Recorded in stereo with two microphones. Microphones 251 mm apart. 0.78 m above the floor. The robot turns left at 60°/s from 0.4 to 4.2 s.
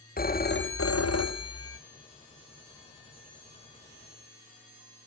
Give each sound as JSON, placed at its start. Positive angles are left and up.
{"t": 0.2, "sound": "a phone ringing", "azimuth_deg": 140, "distance_m": 0.5}